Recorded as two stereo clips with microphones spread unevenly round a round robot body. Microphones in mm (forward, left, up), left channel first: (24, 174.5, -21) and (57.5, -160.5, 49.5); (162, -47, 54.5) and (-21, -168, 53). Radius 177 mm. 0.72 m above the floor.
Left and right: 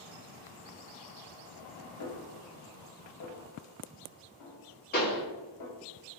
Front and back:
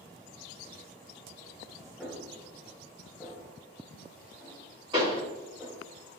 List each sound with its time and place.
2.0 s a snare drum: 120° left, 0.9 m
4.9 s a pop: 145° left, 1.6 m